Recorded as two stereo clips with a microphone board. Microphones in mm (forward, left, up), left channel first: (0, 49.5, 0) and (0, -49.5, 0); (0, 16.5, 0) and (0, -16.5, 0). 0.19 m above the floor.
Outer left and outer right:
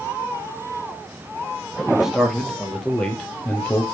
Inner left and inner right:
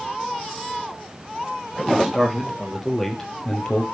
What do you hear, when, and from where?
1.9 s a man speaking: 5° right (ahead or behind), 4 m; by 3.8 s 25° left (ahead or behind), 3.5 m